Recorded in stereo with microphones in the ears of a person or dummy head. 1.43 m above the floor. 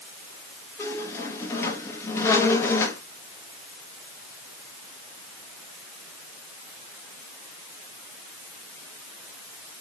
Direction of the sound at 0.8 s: 15° left (ahead or behind).